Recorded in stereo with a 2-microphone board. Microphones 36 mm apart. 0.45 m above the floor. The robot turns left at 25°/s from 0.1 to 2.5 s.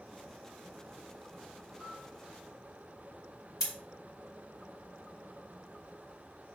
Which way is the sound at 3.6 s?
15° right (ahead or behind).